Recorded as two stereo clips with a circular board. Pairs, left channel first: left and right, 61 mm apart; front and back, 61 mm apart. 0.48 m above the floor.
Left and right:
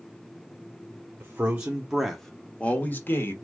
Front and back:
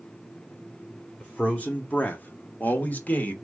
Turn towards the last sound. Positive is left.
turn(degrees=55)